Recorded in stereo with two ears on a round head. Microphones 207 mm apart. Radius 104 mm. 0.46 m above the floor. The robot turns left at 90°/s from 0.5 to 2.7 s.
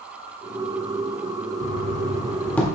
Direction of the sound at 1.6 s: 35° left (ahead or behind).